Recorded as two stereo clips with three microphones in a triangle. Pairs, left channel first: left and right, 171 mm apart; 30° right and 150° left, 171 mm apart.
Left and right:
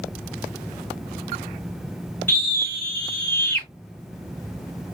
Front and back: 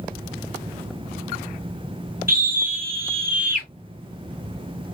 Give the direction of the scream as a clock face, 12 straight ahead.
6 o'clock.